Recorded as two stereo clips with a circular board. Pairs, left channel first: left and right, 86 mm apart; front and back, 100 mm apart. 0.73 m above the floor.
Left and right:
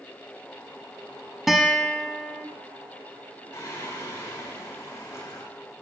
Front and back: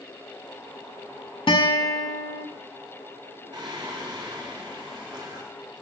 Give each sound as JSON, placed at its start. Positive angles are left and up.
{"t": 1.5, "sound": "a guitar", "azimuth_deg": 0, "distance_m": 1.0}
{"t": 3.5, "sound": "singing", "azimuth_deg": 140, "distance_m": 1.9}